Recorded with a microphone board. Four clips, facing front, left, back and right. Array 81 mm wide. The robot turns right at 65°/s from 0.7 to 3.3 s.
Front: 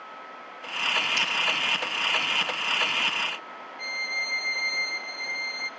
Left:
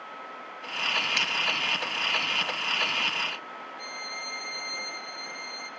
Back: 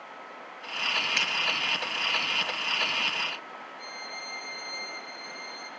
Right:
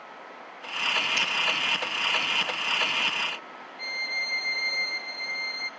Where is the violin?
25° right, 0.6 m.